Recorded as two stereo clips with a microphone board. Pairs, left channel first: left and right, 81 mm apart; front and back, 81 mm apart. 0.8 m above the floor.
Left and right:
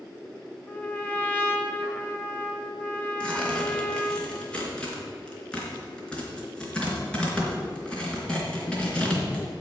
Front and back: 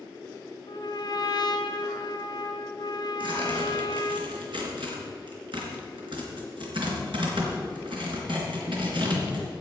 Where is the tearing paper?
165° left, 3.5 m.